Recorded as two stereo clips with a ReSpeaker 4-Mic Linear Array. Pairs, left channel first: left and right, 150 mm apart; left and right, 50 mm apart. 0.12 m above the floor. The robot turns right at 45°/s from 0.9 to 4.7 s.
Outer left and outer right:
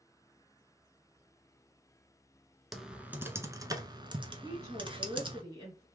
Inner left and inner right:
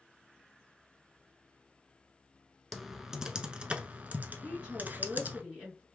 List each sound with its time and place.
2.7 s typing on a keyboard: centre (ahead or behind), 0.6 m; by 5.4 s 35° right (ahead or behind), 0.6 m
4.4 s a woman speaking: 15° right (ahead or behind), 1.8 m; by 5.8 s 20° right (ahead or behind), 1.8 m